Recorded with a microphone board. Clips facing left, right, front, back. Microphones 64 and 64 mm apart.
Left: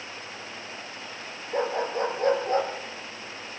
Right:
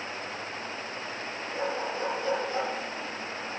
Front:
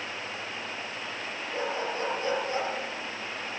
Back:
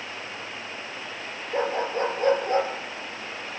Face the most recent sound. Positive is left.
turn(degrees=130)